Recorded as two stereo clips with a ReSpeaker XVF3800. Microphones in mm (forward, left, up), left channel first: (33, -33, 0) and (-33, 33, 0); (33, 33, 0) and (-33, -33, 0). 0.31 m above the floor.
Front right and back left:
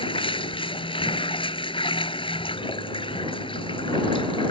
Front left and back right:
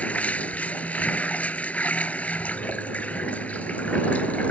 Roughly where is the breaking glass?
No breaking glass in this recording.